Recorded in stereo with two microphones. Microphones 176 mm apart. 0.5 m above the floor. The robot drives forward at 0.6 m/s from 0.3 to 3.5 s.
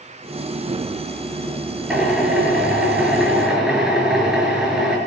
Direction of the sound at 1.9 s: 5° right (ahead or behind).